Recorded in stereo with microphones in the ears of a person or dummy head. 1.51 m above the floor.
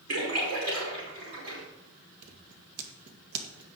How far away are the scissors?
About 1.7 m.